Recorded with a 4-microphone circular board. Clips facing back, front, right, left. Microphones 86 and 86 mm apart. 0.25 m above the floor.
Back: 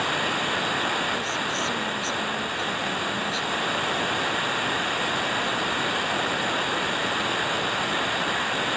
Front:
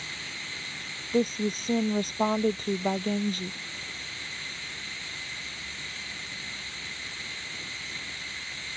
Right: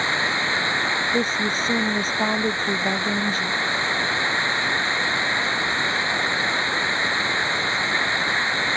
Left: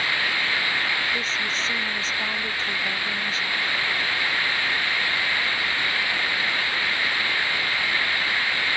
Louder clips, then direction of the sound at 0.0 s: Back 16 dB, right 3 dB; 155° right.